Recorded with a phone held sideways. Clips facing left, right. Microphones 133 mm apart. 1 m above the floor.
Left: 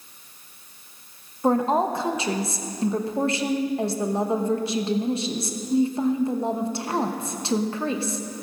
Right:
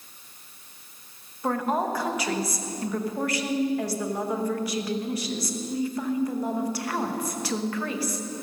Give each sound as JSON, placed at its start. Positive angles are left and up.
{"t": 1.4, "sound": "a woman speaking", "side_deg": 25, "distance_m": 0.9}